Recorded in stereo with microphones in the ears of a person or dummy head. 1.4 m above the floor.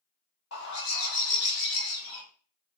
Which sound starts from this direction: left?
A bird, at 0.5 s.